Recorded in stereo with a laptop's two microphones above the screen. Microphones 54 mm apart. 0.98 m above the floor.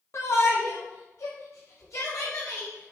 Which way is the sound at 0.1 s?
60° left (ahead or behind).